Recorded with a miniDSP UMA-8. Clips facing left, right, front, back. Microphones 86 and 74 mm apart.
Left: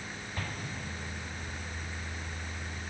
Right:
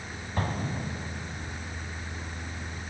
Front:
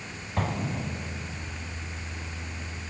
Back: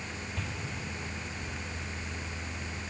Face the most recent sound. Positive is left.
turn(degrees=-40)